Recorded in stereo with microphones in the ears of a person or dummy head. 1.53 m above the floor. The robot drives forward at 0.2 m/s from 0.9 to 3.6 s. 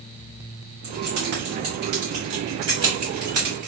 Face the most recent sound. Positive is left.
turn(degrees=-45)  # may be behind; listen again after turning